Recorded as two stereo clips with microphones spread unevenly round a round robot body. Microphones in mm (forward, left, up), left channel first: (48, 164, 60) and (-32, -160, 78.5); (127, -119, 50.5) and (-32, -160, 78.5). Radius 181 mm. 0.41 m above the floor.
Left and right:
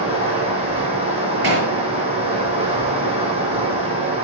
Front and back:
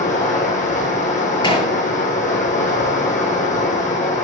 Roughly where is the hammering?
Ahead right.